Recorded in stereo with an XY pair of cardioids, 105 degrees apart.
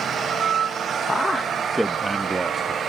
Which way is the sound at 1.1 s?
30° left.